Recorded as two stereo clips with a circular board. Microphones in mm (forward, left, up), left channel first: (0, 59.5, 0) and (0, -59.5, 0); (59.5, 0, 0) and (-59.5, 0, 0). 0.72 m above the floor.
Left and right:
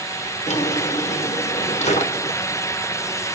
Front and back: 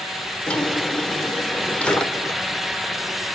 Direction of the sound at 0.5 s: 80° left.